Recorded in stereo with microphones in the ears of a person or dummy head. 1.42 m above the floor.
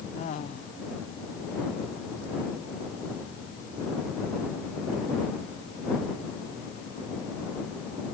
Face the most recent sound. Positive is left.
turn(degrees=40)  # may be behind; listen again after turning